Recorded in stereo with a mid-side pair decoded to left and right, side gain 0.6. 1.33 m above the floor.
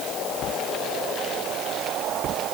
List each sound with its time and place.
Only background noise.